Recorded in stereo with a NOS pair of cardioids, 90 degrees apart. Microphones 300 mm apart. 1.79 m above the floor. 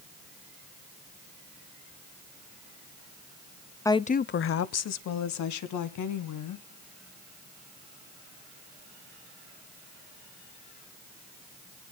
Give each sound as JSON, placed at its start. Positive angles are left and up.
{"t": 3.9, "sound": "a woman speaking", "azimuth_deg": 10, "distance_m": 0.7}